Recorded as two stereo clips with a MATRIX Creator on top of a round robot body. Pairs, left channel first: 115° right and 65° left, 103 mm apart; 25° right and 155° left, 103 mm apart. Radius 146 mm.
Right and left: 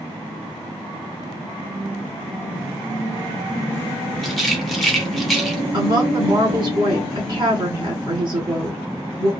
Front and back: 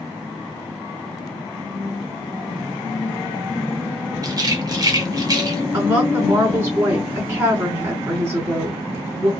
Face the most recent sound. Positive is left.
turn(degrees=95)